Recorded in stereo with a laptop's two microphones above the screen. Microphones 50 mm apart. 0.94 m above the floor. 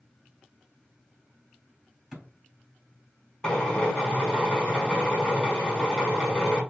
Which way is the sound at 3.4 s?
20° left (ahead or behind).